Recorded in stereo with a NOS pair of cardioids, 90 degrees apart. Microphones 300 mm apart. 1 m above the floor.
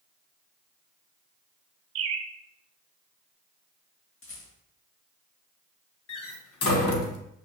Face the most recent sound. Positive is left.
turn(degrees=55)